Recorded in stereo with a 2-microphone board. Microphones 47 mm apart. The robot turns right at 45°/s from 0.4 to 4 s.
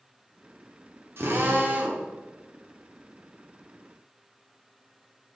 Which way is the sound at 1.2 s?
70° right.